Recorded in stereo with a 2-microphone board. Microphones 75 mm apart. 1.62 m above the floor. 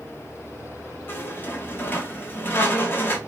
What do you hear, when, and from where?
1.1 s a squeak: 25° left (ahead or behind), 0.7 m